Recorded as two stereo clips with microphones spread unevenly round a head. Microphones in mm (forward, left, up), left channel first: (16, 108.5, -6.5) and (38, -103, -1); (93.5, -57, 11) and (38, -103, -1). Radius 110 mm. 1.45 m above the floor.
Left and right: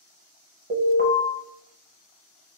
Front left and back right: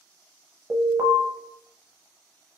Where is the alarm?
120° right, 0.8 m.